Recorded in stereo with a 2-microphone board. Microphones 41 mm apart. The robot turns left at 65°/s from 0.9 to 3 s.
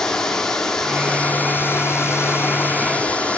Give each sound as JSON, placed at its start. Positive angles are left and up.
{"t": 0.0, "sound": "running water", "azimuth_deg": 170, "distance_m": 1.1}